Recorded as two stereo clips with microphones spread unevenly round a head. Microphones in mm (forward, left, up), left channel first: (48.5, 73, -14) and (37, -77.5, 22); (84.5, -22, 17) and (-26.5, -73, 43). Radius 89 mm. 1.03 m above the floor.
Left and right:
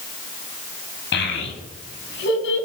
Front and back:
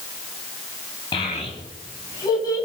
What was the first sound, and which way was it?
A child speaking, 90° left.